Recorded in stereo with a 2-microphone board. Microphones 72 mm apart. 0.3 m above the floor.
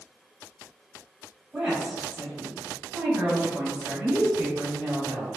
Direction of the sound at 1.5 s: 10° right (ahead or behind).